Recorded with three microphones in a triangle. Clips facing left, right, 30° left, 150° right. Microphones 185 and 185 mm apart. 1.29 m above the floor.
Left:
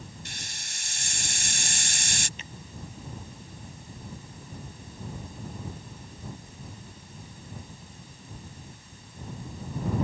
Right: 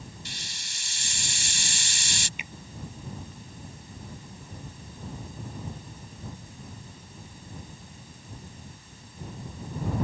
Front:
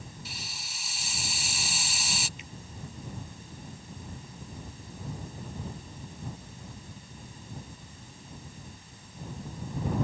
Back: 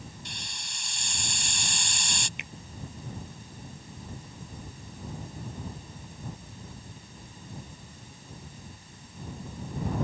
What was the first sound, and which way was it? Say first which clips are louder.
A hiss: even, even; 115° left.